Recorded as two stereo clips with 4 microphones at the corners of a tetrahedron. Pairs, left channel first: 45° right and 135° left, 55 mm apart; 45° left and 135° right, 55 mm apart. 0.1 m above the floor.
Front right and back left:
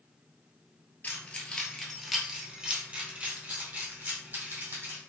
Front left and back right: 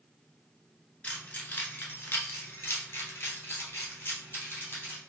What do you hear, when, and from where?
1.0 s keys jangling: 5° right, 1.0 m; by 5.0 s 95° left, 2 m